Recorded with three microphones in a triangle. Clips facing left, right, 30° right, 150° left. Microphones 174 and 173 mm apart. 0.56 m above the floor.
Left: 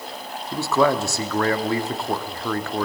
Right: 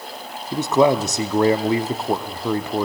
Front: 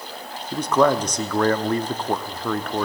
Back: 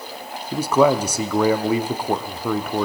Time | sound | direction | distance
0.5 | a man speaking | 140° right | 0.8 m